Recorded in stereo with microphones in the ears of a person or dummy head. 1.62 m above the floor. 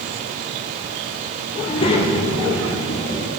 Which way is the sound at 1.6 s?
30° left (ahead or behind).